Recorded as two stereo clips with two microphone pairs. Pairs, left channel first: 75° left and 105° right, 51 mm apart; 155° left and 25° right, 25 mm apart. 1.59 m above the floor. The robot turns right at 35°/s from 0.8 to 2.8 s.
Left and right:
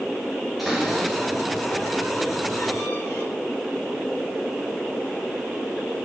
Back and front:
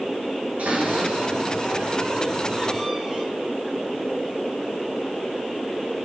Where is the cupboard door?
15° right, 7 m; by 3.2 s 55° left, 7 m.